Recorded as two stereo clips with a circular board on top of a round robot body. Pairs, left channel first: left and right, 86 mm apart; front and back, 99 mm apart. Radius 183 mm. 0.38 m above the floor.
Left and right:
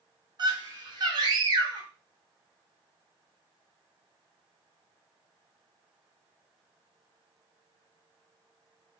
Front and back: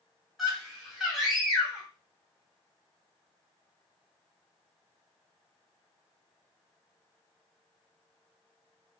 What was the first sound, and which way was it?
A scream, 95° right.